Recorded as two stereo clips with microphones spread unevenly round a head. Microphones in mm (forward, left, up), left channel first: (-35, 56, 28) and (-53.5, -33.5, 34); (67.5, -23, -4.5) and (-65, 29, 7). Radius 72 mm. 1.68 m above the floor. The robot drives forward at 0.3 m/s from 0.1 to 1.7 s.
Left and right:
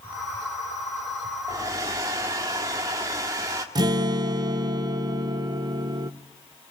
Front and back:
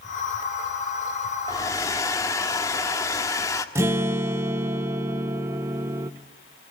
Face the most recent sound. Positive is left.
turn(degrees=-135)